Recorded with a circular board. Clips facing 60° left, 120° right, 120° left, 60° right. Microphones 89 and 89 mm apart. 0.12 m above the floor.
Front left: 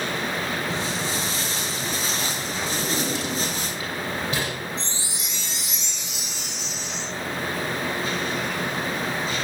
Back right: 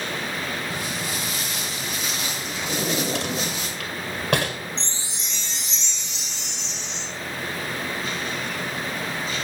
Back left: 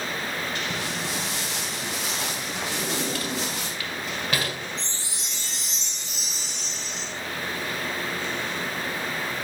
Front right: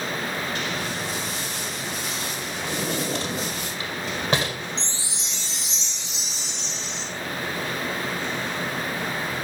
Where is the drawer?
120° right, 1.8 m.